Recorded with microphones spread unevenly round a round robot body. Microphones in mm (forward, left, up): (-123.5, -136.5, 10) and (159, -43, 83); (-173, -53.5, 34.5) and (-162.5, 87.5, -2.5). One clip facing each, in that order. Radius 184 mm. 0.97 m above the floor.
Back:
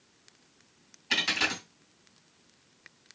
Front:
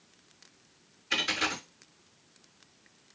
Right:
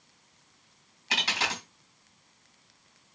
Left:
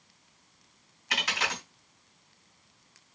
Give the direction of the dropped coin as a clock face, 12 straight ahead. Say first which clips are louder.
Even, right 1 dB; 5 o'clock.